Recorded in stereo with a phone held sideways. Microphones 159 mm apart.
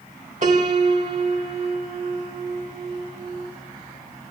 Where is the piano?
55° right (ahead or behind), 1.7 m.